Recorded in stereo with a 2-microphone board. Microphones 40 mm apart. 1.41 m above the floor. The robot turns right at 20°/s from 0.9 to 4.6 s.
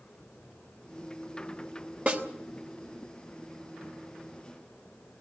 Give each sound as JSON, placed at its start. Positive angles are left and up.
{"t": 2.1, "sound": "a snare drum", "side_deg": -40, "distance_m": 3.0}